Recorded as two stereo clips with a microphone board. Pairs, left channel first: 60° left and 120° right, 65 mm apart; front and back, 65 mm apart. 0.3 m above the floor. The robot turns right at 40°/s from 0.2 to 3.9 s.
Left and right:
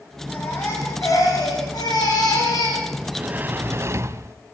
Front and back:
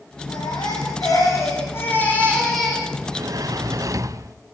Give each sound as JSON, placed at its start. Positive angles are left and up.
{"t": 0.3, "sound": "a baby crying", "azimuth_deg": -5, "distance_m": 8.5}
{"t": 3.0, "sound": "a sliding door", "azimuth_deg": 160, "distance_m": 1.0}